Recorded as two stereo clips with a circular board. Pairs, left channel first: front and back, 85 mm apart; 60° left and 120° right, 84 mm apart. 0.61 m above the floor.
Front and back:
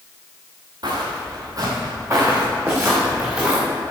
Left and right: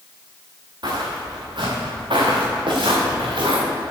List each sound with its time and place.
0.8 s footsteps: 150° right, 4 m; by 3.6 s 105° right, 5 m